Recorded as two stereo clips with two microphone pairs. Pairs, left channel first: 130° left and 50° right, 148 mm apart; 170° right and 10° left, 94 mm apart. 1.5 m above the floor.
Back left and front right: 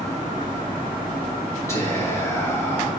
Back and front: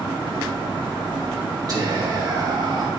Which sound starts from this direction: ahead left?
Whispering, at 1.7 s.